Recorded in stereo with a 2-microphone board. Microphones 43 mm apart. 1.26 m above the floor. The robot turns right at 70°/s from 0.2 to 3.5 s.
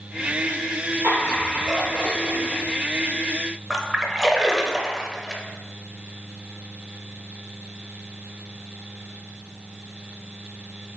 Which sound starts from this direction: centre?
A splash, at 3.7 s.